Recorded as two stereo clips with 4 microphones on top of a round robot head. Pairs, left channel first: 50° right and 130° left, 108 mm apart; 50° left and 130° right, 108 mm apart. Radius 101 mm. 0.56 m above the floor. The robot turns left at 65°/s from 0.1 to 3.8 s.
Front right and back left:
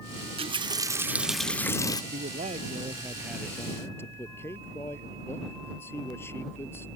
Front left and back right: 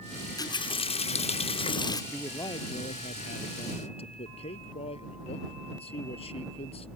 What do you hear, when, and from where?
0.2 s a running tap: 115° left; by 2.0 s straight ahead
2.1 s a man speaking: 130° left; by 6.9 s 20° left